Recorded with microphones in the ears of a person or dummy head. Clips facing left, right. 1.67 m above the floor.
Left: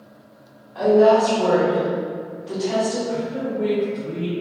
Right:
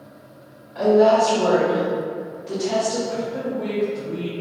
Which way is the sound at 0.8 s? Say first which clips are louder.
Left 1 dB; 5° right (ahead or behind).